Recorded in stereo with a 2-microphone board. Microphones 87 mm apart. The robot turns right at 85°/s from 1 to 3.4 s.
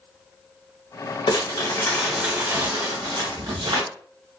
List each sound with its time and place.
1.3 s crumpling: 110° left, 1.2 m; by 3.8 s 70° right, 1.2 m